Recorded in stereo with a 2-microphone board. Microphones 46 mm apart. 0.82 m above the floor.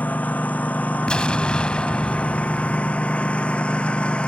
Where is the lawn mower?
35° left (ahead or behind); by 4.3 s 25° left (ahead or behind).